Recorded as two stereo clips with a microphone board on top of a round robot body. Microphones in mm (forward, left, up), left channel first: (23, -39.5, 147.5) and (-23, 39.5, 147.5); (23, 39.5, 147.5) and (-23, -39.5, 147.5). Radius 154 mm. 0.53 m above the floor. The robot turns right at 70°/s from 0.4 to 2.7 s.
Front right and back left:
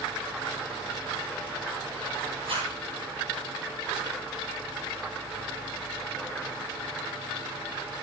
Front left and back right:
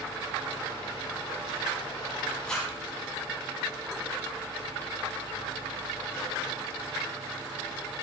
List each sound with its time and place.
2.5 s a zipper: 140° left, 3.5 m; by 2.8 s 155° left, 3.5 m